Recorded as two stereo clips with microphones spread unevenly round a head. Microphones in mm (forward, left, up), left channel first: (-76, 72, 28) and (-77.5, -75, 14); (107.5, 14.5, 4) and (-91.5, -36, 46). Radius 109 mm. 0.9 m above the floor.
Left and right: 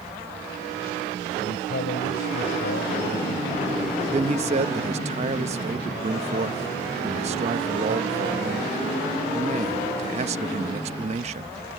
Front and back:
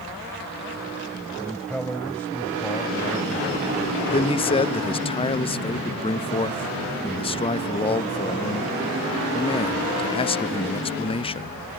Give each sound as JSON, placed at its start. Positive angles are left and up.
{"t": 1.4, "sound": "a man speaking", "azimuth_deg": 105}
{"t": 4.1, "sound": "a man speaking", "azimuth_deg": -45}